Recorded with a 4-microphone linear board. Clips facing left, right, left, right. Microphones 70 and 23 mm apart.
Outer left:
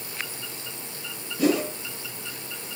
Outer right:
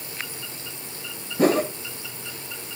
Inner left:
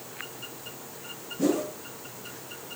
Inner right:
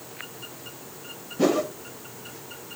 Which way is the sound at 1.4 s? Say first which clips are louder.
Outer right 3 dB, inner right 4 dB; 45° right (ahead or behind).